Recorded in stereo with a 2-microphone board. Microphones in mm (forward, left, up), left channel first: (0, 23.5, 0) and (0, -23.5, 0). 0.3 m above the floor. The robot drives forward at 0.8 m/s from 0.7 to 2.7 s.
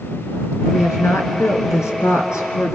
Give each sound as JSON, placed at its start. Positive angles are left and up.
{"t": 0.7, "sound": "a woman speaking", "side_deg": 75, "distance_m": 4.0}